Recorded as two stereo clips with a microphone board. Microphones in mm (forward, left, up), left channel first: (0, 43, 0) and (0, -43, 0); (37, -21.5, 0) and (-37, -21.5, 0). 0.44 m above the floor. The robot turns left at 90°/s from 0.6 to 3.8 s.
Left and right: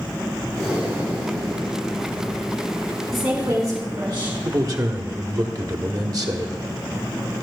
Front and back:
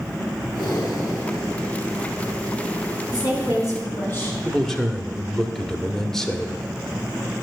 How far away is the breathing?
About 4 m.